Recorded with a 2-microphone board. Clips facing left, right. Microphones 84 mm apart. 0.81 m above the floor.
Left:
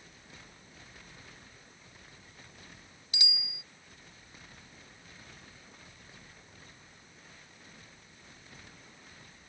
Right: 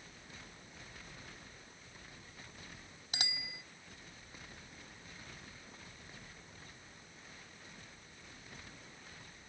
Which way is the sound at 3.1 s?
55° right (ahead or behind).